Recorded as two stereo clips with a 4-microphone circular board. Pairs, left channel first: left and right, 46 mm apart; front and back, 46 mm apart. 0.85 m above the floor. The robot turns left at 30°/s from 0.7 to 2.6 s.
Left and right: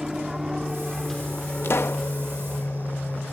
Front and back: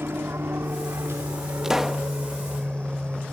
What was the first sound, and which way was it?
An aircraft, 170° right.